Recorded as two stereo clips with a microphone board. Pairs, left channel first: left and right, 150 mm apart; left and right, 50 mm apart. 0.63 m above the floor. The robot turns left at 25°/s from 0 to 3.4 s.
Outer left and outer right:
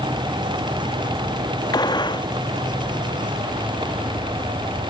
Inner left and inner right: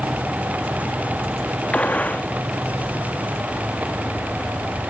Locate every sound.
1.7 s a gunshot: 30° left (ahead or behind), 0.6 m